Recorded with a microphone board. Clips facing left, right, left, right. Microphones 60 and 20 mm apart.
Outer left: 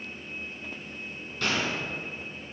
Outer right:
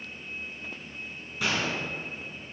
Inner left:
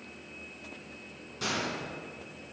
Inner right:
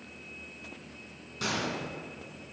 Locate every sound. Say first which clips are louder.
1.4 s a gunshot: even, even; 15° right (ahead or behind), 2.5 m